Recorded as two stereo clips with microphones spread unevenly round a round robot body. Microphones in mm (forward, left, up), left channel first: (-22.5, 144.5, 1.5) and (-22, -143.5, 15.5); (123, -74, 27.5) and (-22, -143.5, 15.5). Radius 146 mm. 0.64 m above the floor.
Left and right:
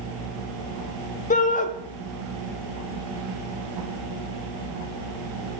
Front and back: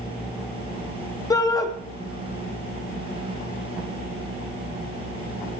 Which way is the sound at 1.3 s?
80° left.